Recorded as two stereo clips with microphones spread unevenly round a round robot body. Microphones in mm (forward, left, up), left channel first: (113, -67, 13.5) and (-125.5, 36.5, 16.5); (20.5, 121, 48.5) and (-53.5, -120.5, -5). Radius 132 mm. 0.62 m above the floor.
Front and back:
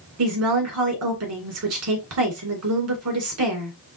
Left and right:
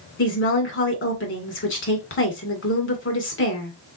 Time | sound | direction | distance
0.2 | a woman speaking | 125° left | 2 m